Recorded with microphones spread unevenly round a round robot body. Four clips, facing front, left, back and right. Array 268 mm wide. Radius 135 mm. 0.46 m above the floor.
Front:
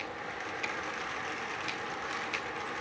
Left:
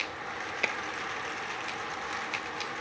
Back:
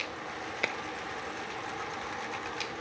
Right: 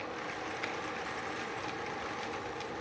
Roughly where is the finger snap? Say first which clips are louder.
Left 7 dB, back 6 dB; behind left.